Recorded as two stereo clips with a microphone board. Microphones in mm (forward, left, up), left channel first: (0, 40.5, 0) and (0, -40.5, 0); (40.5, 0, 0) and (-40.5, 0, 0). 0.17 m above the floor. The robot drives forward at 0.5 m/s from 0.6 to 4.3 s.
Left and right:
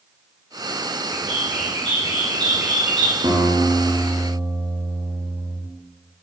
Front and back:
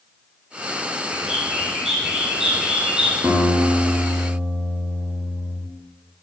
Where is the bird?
90° right, 6 m; by 3.2 s 100° right, 6 m.